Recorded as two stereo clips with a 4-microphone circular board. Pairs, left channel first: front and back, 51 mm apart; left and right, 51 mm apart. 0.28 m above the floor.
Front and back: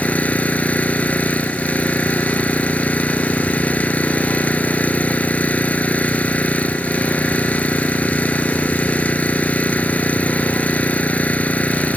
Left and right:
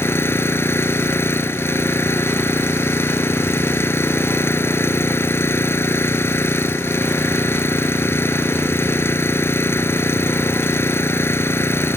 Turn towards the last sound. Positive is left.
turn(degrees=60)